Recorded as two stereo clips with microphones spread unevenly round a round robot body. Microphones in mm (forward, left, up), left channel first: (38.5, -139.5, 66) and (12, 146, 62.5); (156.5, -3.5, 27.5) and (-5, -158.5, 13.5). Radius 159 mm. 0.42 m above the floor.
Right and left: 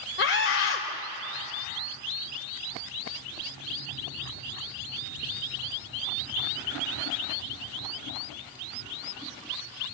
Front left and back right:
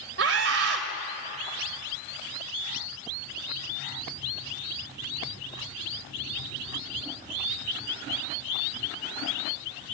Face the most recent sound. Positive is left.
turn(degrees=-135)